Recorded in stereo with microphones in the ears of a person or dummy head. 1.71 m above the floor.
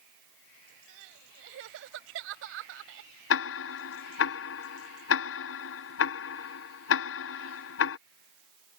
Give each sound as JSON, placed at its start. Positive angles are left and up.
{"t": 0.9, "sound": "crying", "side_deg": -65}
{"t": 3.3, "sound": "ticking", "side_deg": 65}